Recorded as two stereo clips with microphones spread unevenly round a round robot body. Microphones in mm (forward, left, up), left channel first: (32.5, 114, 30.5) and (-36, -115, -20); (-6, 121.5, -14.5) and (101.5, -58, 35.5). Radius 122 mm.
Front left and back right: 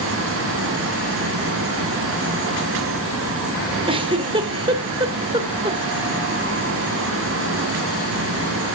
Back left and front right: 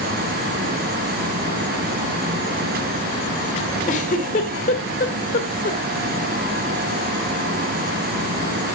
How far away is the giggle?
About 1.2 m.